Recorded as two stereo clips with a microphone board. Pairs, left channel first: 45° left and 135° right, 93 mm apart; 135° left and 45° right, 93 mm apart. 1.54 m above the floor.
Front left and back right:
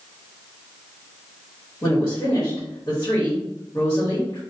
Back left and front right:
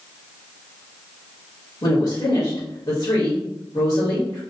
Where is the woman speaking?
105° left, 1.1 m.